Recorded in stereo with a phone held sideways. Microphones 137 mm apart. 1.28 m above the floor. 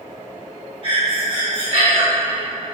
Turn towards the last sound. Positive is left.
turn(degrees=-40)  # may be behind; listen again after turning